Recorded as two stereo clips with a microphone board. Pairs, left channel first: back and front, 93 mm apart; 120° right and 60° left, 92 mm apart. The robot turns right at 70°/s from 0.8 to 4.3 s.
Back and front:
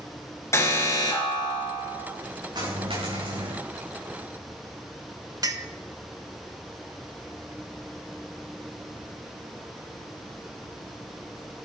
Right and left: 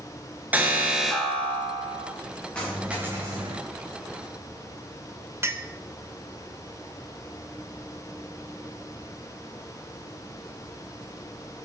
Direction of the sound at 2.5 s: 40° right.